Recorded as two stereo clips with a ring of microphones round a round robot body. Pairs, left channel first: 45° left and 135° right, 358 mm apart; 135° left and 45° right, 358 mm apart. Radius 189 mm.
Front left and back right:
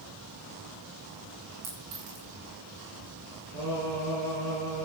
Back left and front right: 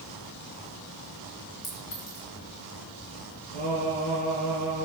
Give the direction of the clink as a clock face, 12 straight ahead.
6 o'clock.